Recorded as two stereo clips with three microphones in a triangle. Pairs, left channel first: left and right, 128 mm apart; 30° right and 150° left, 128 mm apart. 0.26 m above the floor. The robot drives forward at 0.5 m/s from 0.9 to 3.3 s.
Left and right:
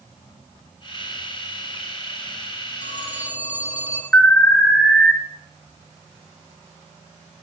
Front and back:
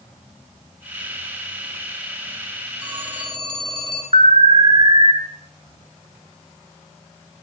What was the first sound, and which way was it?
A phone ringing, 100° left.